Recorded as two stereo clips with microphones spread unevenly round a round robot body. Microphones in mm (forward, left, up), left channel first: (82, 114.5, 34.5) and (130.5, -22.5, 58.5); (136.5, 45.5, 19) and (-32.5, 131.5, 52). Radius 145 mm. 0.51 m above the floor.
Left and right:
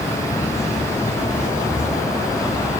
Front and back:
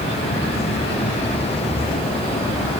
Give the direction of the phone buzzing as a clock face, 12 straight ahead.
No phone buzzing in this recording.